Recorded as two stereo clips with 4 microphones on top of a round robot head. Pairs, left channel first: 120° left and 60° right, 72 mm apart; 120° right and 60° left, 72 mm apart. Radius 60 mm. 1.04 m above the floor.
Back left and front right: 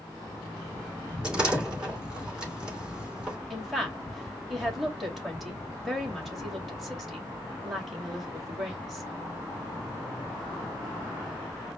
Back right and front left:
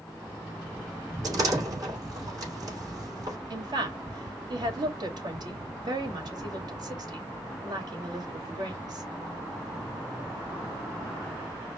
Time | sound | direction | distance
1.2 | a door slam | 20° left | 2.5 m
3.5 | a woman speaking | 30° left | 2 m